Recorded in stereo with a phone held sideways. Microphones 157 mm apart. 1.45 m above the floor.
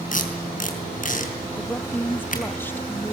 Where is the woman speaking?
15° left (ahead or behind), 1.1 m.